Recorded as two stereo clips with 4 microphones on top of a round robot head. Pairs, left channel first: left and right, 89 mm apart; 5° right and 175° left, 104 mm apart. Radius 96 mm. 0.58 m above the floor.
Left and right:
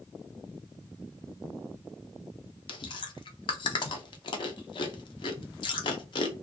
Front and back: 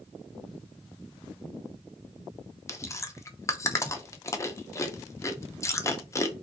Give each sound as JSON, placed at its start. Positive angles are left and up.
{"t": 2.7, "sound": "chewing", "azimuth_deg": 60, "distance_m": 0.5}